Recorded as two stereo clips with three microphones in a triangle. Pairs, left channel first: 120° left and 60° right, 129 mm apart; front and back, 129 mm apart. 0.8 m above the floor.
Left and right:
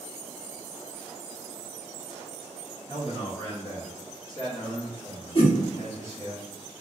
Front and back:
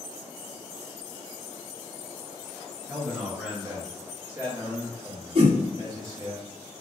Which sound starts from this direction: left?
A man speaking, at 2.9 s.